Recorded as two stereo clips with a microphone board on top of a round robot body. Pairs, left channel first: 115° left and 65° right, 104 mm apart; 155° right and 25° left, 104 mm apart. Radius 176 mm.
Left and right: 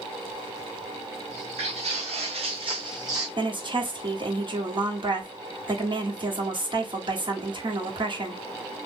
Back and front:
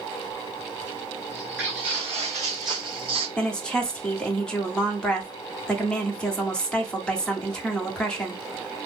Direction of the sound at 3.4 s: 80° right.